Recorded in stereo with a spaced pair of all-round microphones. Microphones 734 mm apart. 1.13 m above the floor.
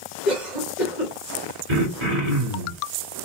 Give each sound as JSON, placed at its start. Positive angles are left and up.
{"t": 0.2, "sound": "a cough", "side_deg": 70, "distance_m": 2.0}
{"t": 1.7, "sound": "throat clearing", "side_deg": -40, "distance_m": 2.0}